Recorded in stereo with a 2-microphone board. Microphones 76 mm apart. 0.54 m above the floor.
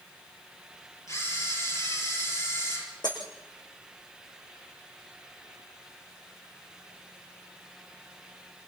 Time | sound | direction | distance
1.1 | a camera shutter | 45° left (ahead or behind) | 9.5 m
3.0 | breaking glass | 75° left (ahead or behind) | 6.5 m